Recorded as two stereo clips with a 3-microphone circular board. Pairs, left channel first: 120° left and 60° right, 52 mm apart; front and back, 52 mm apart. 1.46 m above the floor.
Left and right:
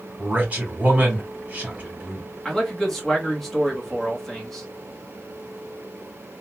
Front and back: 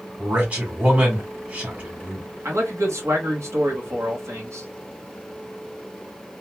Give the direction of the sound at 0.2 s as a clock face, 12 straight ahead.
4 o'clock.